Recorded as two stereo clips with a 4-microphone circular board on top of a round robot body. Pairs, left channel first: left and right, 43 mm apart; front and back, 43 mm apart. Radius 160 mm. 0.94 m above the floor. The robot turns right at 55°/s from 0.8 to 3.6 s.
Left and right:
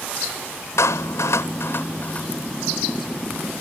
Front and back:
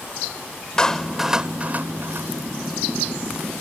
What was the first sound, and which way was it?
A clap, 75° left.